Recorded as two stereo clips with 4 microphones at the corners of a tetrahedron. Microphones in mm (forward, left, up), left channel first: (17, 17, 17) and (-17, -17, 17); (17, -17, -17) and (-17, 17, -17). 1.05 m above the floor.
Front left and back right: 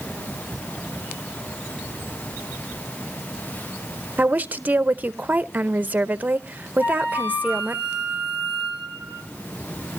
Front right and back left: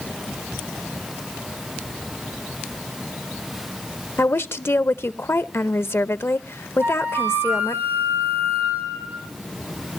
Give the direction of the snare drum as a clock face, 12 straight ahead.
I don't hear a snare drum.